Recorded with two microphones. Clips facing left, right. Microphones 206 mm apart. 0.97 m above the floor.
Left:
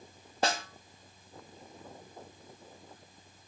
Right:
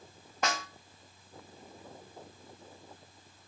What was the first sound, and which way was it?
A snare drum, 30° left (ahead or behind).